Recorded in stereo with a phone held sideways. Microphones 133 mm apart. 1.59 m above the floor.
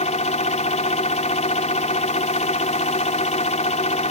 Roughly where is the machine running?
Left.